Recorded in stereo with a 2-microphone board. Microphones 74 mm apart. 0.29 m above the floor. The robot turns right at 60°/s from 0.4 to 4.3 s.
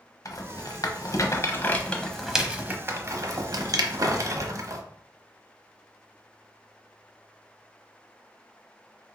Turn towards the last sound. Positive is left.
turn(degrees=-45)  # may be behind; listen again after turning